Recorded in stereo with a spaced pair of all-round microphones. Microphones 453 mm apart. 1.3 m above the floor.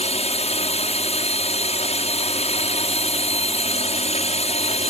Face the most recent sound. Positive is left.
turn(degrees=15)  # may be behind; listen again after turning